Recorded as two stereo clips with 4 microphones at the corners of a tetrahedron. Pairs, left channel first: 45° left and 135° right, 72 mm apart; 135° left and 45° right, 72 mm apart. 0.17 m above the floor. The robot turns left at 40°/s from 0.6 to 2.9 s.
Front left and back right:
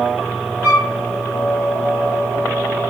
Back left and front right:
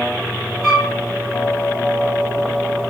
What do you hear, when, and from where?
0.6 s a flute: 150° right, 1.5 m; by 0.9 s 165° right, 1.5 m